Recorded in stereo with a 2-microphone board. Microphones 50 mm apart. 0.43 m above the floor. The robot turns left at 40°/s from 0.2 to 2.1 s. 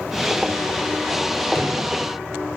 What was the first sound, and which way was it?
A drawer, 60° left (ahead or behind).